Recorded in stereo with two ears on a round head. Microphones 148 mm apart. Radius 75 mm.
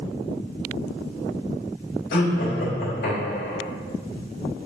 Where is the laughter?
75° left (ahead or behind), 3 m.